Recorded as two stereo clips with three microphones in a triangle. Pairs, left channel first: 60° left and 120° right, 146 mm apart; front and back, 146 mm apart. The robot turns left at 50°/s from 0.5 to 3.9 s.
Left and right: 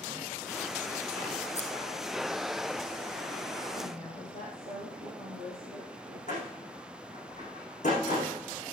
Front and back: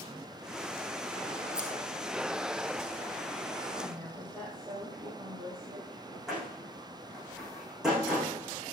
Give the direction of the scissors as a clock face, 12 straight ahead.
9 o'clock.